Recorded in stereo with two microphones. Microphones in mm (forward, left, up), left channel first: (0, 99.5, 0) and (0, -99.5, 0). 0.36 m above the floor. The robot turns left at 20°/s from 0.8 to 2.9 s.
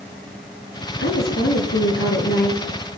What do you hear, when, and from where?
1.0 s a woman speaking: 85° left, 7.5 m; by 2.7 s 55° left, 7.5 m